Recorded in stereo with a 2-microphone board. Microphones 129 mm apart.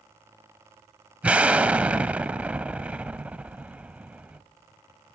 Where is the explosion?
10° right (ahead or behind), 0.7 m.